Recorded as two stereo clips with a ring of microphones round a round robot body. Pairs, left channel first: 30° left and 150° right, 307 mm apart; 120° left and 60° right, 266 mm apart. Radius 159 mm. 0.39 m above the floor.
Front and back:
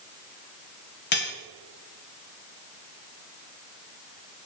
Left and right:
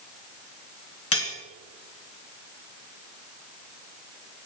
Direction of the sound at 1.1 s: 85° left.